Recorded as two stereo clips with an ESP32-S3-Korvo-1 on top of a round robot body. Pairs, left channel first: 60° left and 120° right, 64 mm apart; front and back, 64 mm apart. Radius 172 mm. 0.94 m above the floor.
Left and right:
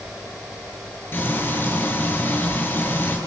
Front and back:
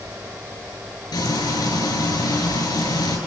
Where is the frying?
Straight ahead, 10 m.